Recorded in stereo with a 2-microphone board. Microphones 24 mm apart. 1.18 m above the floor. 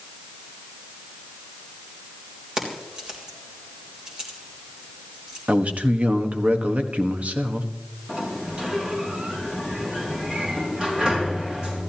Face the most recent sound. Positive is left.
turn(degrees=-35)  # may be behind; listen again after turning